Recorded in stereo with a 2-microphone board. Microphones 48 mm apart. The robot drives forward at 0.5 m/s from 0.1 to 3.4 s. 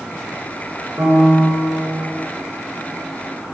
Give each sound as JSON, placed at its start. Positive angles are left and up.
{"t": 1.0, "sound": "a piano", "side_deg": -40, "distance_m": 1.7}